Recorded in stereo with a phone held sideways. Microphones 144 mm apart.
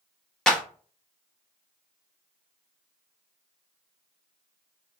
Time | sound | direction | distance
0.5 | a clap | 5° left (ahead or behind) | 0.9 m